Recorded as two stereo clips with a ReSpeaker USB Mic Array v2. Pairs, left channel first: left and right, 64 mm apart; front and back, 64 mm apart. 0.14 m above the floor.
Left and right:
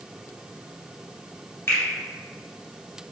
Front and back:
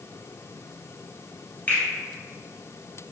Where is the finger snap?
55° left, 1.8 m.